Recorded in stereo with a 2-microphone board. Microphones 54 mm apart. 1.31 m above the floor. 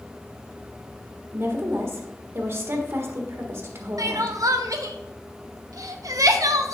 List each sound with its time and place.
1.3 s a woman speaking: 45° right (ahead or behind), 1.6 m
4.0 s crying: 75° right (ahead or behind), 0.7 m